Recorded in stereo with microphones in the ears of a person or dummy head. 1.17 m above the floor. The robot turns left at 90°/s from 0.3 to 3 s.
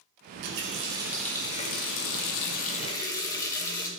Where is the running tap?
100° right, 0.6 m; by 3.9 s 15° left, 0.6 m.